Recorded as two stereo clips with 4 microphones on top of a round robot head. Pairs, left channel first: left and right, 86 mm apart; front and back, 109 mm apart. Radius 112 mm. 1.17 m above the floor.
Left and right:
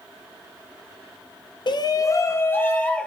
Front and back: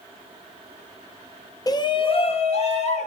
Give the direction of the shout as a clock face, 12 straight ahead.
10 o'clock.